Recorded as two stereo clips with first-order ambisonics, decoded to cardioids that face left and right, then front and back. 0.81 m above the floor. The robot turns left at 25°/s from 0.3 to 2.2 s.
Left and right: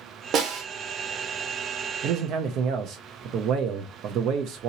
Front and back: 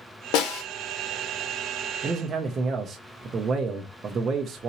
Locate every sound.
0.3 s a snare drum: 30° right, 1.2 m; by 0.6 s 35° right, 1.2 m
2.0 s a man speaking: 115° right, 0.6 m; by 4.7 s 120° right, 0.6 m